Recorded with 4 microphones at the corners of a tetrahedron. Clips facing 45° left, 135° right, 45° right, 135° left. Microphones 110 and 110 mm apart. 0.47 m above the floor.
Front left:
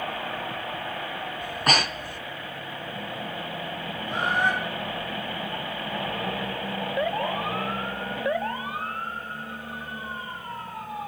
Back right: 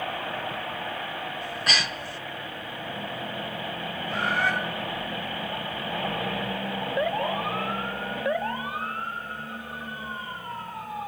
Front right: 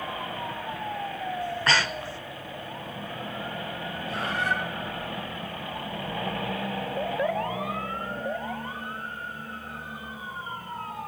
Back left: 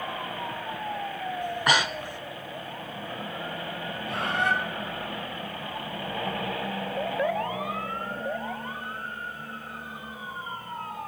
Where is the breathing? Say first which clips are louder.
Front left 7 dB, back left 2 dB; 70° left, 0.6 m.